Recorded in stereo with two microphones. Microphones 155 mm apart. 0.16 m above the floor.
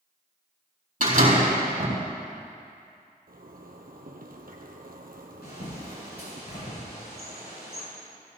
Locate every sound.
1.0 s a door slam: 65° right (ahead or behind), 4.5 m
3.3 s a zipper: 80° right, 1.5 m
5.4 s a bird: 90° left, 5.5 m